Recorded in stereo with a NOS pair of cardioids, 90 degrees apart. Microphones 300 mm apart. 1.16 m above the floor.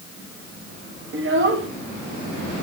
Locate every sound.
1.1 s a child speaking: 40° right, 1.6 m